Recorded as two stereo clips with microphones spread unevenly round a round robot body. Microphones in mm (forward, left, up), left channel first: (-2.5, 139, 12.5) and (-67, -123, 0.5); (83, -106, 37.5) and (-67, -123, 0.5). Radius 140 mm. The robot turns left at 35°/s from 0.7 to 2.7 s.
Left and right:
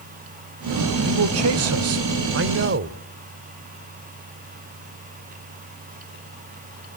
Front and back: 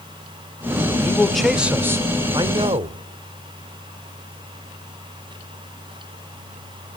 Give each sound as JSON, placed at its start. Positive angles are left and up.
{"t": 1.0, "sound": "a man speaking", "azimuth_deg": -80, "distance_m": 1.4}